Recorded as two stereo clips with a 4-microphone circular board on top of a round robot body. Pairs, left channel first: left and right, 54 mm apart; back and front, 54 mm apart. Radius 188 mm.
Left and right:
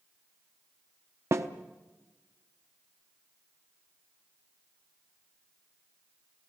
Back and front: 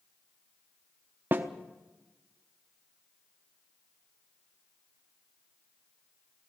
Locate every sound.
1.3 s a snare drum: 55° right, 0.7 m